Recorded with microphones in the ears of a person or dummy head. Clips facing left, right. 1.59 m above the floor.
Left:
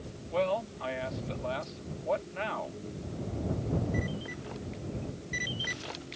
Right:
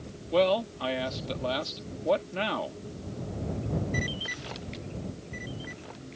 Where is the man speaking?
50° right (ahead or behind).